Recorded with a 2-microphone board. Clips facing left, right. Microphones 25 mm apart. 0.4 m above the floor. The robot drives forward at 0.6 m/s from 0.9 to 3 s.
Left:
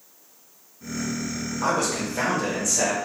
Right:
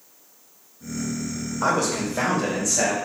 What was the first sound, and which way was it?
A man speaking, 10° right (ahead or behind).